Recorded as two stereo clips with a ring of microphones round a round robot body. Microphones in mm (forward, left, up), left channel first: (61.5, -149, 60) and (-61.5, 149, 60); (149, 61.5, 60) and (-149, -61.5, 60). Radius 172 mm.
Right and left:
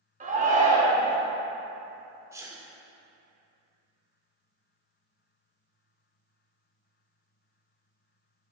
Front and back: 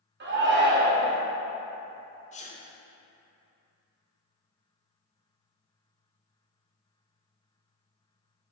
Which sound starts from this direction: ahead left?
A sneeze, at 2.3 s.